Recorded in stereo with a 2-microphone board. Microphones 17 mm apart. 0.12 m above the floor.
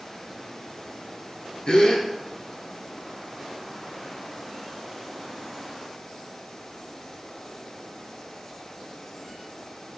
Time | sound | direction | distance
1.7 | a gasp | 55° left (ahead or behind) | 0.7 m